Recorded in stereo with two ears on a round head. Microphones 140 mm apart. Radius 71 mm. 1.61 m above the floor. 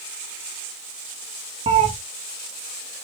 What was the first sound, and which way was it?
A cat meowing, 35° right (ahead or behind).